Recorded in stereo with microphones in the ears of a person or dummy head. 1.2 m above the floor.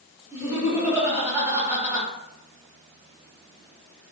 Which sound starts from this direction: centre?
Laughter, at 0.3 s.